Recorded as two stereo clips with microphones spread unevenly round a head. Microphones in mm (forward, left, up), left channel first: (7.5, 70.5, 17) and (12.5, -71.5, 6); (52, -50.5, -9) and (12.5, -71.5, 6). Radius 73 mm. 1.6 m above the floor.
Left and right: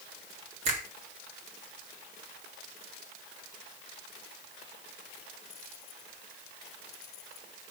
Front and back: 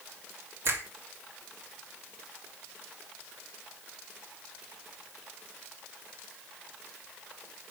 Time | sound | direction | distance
0.7 | a finger snap | 135° right | 4.5 m